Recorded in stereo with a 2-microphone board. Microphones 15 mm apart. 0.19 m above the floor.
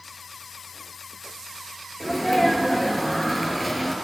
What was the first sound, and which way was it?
A sneeze, 5° left (ahead or behind).